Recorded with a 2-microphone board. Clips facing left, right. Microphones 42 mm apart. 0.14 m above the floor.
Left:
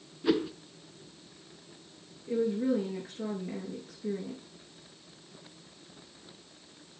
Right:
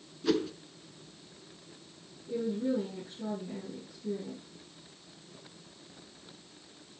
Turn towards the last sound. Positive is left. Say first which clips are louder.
# left 3 dB
turn(degrees=80)